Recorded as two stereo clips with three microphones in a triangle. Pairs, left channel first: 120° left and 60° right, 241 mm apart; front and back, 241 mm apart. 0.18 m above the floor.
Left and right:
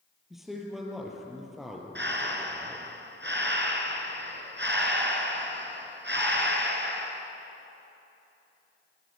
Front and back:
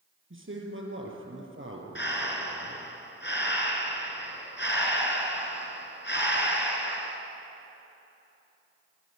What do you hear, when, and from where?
0.3 s a man speaking: 150° right, 4 m
1.9 s breathing: 30° right, 2.5 m